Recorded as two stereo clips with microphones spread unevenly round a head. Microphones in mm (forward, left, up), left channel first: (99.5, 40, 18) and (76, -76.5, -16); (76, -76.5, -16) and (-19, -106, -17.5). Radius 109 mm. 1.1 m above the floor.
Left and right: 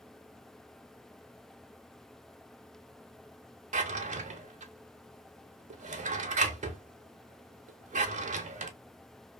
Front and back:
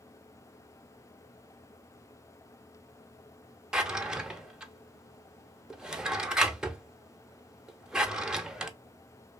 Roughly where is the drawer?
Right.